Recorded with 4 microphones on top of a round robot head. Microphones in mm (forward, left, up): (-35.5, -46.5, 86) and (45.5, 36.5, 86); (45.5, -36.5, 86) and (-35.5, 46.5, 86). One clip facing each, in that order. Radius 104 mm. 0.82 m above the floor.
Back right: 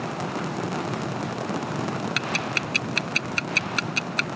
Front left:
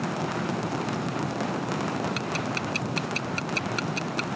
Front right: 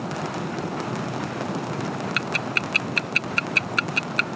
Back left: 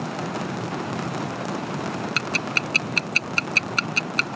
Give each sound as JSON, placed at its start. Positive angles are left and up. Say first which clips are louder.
{"t": 2.2, "sound": "ticking", "louder": "back right 1 dB, even", "azimuth_deg": -165}